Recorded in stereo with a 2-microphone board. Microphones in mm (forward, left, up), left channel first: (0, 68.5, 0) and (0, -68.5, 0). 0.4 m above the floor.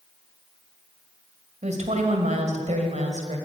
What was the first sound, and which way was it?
A woman speaking, 60° right (ahead or behind).